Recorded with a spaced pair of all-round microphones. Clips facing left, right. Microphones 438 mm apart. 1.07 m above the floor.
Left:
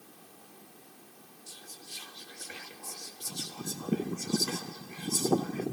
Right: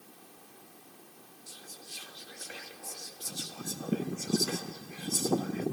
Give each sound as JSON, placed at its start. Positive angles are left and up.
{"t": 1.5, "sound": "whispering", "side_deg": 15, "distance_m": 1.6}